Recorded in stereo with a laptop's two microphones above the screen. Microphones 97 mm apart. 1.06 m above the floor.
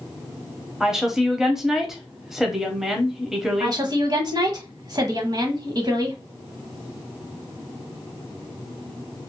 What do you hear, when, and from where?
0.8 s a woman speaking: 5° right (ahead or behind), 0.8 m
3.6 s a woman speaking: 45° right (ahead or behind), 1.0 m